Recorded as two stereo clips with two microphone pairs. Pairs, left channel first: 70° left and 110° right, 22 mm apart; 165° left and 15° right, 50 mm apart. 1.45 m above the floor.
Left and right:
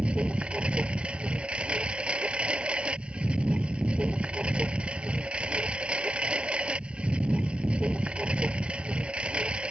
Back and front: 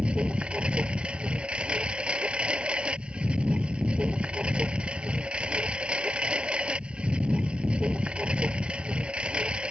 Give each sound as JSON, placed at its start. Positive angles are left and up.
{"t": 0.0, "sound": "a lawn mower", "azimuth_deg": -80}